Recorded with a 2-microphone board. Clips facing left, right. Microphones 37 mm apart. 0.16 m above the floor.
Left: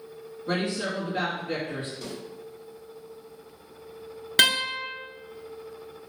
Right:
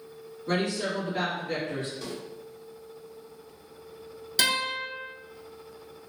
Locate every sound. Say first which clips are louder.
0.5 s a woman speaking: even; 30° left (ahead or behind), 1.9 m
2.0 s a snare drum: even; 5° right (ahead or behind), 1.5 m
4.4 s a guitar: left 4 dB; 55° left (ahead or behind), 0.7 m